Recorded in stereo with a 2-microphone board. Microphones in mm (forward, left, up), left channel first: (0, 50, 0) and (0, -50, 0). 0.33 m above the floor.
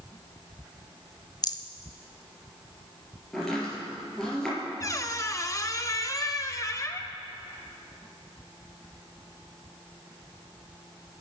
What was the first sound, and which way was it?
A rattle, 40° left (ahead or behind).